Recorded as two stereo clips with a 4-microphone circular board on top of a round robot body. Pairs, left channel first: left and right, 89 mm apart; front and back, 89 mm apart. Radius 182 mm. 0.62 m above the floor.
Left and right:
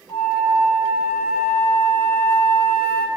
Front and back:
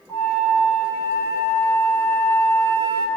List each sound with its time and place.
0.1 s a flute: 50° left, 3.5 m